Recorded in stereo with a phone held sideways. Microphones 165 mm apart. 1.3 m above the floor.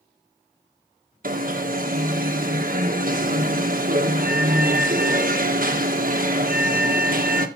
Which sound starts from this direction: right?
An alarm, at 1.2 s.